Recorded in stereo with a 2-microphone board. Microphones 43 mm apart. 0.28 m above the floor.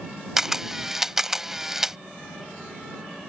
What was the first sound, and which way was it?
A camera shutter, 10° right (ahead or behind).